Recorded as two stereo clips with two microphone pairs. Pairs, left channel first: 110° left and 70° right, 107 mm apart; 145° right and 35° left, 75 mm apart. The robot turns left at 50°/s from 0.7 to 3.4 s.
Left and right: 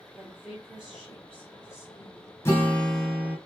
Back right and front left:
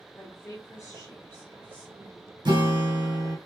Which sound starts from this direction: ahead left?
A guitar, at 2.5 s.